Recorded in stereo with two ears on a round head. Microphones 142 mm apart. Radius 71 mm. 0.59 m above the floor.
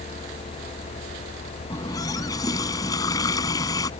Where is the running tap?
25° left (ahead or behind).